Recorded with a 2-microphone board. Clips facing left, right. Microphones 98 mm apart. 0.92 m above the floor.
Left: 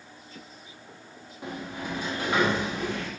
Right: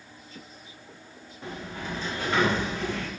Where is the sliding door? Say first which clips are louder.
Left 1 dB; 15° left (ahead or behind), 0.7 m.